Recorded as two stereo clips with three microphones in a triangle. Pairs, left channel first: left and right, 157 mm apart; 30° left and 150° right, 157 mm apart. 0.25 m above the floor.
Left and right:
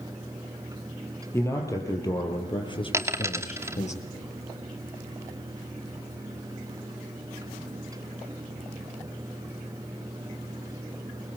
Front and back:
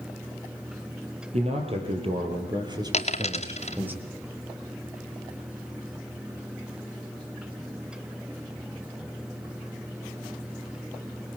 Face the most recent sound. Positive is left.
turn(degrees=-15)